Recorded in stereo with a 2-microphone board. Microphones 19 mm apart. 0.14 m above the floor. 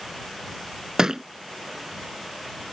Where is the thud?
35° right (ahead or behind).